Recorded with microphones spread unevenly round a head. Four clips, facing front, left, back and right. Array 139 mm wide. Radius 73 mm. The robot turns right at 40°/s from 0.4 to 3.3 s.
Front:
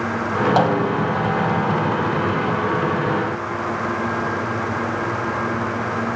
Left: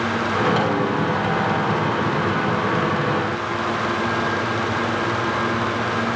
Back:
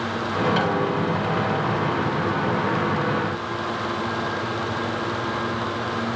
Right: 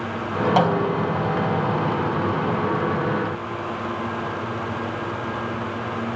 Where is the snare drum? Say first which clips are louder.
Right 1 dB, front 4 dB; 30° right, 4 m; by 1.1 s 10° right, 4 m.